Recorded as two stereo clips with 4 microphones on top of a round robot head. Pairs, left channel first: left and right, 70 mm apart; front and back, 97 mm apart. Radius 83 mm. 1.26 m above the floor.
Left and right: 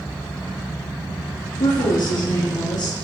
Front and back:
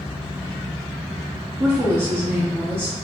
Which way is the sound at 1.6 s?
105° left.